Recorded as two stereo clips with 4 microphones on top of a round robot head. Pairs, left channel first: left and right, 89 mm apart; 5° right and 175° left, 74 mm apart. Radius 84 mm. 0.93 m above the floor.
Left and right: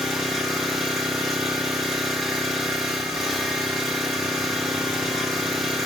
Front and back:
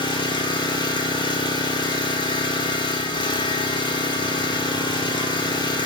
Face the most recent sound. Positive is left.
turn(degrees=0)